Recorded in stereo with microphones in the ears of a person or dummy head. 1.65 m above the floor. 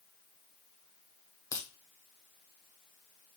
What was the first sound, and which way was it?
A crack, 20° left (ahead or behind).